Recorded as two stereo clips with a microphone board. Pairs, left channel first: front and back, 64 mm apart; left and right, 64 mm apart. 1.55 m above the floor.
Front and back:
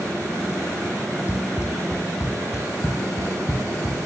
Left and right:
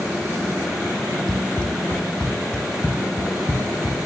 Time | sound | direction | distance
1.3 | running footsteps | 15° left | 2 m